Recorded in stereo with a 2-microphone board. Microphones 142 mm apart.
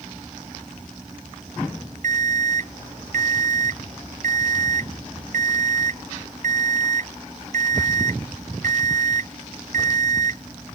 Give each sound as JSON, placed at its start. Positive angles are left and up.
{"t": 2.0, "sound": "an alarm clock", "side_deg": -60}